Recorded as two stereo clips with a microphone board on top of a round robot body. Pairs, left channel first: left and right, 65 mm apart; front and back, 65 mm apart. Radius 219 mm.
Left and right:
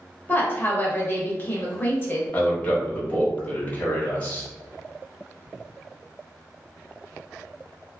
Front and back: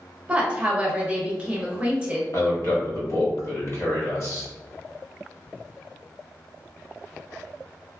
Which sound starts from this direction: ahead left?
A man speaking, at 2.3 s.